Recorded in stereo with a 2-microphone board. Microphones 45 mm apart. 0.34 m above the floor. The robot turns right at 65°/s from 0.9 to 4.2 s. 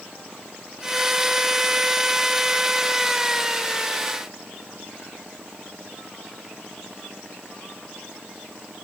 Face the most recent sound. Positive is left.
No sound to turn to.